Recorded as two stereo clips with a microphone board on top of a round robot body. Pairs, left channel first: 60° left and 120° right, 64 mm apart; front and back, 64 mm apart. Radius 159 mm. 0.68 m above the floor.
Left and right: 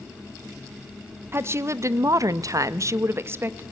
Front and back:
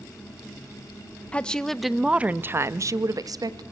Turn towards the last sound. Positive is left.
turn(degrees=-175)